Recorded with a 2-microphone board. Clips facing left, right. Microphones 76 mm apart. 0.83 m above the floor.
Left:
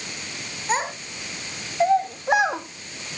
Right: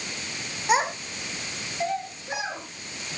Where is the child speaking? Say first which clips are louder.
Right 2 dB; 10° right (ahead or behind), 1.8 m; by 2.6 s 70° left (ahead or behind), 1.7 m.